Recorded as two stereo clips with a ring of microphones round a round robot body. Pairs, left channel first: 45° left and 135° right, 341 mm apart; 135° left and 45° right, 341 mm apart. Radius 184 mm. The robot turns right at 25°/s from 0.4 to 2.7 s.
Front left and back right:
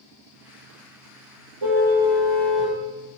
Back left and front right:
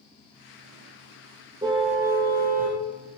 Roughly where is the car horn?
Behind right.